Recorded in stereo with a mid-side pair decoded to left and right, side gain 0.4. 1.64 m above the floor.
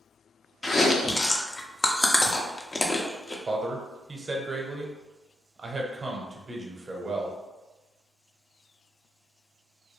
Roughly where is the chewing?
Ahead left.